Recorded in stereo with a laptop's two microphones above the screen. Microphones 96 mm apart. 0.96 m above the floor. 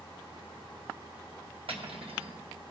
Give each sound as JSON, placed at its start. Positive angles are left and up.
{"t": 1.7, "sound": "cutlery clinking", "side_deg": -70, "distance_m": 1.0}